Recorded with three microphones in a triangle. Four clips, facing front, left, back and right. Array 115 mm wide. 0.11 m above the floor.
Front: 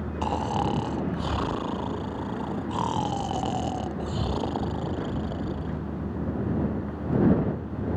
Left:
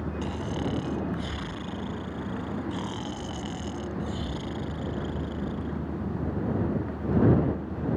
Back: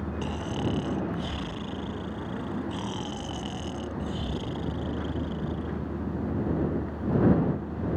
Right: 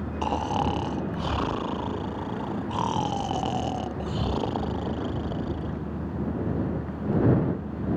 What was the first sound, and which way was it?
Snoring, 55° right.